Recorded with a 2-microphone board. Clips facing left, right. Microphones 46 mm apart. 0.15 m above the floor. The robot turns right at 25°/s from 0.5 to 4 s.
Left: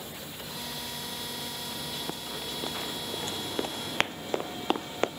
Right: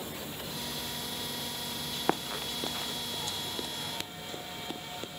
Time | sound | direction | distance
0.0 | a helicopter | 15° right | ?
2.1 | running footsteps | 50° right (ahead or behind) | ?